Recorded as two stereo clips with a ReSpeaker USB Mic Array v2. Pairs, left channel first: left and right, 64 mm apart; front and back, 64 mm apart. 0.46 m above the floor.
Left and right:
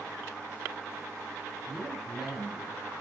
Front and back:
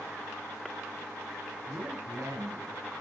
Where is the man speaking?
175° right, 4.5 m.